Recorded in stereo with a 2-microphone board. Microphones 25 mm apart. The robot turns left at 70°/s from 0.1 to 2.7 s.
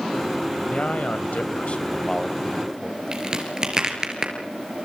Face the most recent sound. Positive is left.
turn(degrees=-30)  # may be behind; listen again after turning